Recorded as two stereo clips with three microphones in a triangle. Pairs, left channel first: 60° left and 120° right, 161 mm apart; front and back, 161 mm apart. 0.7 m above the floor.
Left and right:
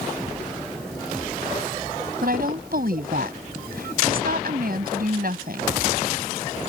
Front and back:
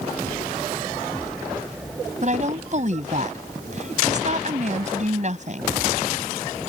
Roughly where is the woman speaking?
Behind right.